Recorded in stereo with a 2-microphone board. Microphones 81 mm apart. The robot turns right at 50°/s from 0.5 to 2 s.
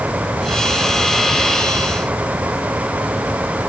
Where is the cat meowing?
I don't hear a cat meowing.